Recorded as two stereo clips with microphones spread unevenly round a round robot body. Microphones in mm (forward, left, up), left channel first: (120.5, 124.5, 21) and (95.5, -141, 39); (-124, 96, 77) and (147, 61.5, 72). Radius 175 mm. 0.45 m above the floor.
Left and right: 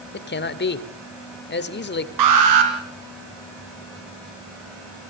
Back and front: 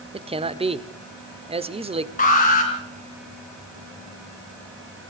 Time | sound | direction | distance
0.1 | a man speaking | 55° left | 1.5 m
2.2 | an alarm | 120° right | 4 m